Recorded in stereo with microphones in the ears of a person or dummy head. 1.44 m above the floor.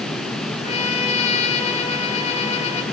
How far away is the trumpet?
About 2.5 m.